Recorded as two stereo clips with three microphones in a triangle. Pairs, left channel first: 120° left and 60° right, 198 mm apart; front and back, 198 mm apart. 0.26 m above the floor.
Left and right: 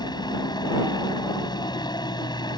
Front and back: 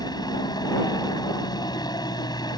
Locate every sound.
0.0 s a helicopter: 60° left